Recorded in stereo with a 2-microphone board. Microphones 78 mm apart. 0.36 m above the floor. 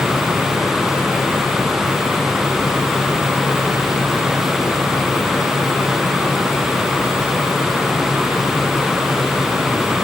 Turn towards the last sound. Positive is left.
No sound to turn to.